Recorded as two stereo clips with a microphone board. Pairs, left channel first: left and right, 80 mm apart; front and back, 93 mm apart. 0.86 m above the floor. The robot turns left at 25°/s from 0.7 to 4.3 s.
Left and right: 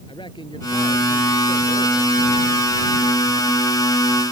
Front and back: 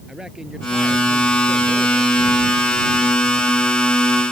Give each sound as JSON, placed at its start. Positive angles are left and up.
{"t": 0.1, "sound": "a man speaking", "azimuth_deg": 95}